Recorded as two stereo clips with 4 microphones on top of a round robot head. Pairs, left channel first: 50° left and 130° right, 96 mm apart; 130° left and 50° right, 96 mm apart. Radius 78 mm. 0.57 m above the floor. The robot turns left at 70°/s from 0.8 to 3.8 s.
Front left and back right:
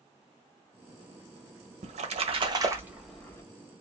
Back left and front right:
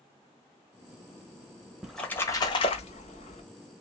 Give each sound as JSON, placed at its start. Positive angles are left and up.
{"t": 1.8, "sound": "a splash", "azimuth_deg": -135, "distance_m": 1.3}